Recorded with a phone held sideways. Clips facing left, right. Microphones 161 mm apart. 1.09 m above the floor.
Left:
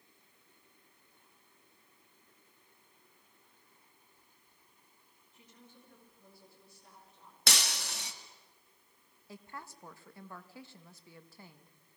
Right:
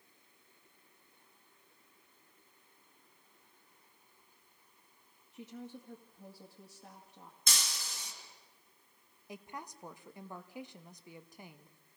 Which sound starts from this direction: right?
A woman speaking, at 5.3 s.